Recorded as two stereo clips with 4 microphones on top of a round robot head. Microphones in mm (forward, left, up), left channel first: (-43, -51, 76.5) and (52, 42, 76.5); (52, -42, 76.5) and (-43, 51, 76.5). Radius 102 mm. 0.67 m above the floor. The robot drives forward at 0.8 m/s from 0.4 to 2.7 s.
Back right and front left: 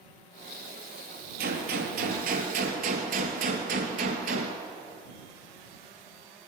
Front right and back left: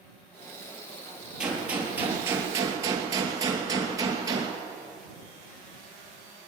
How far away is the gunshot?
About 3 m.